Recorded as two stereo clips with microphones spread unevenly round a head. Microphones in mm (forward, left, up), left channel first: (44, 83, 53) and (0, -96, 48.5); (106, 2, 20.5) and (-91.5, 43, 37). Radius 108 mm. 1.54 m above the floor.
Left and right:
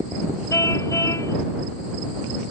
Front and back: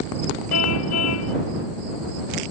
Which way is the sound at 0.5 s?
Straight ahead.